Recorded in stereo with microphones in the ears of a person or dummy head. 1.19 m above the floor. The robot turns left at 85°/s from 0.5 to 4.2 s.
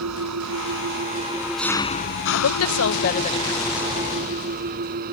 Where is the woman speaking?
115° left; by 3.9 s 20° right.